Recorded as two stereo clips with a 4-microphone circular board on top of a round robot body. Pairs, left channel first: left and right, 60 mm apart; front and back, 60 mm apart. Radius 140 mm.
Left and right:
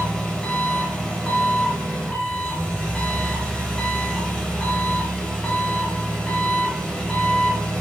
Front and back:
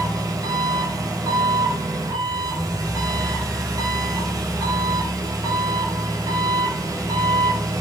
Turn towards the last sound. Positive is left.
turn(degrees=165)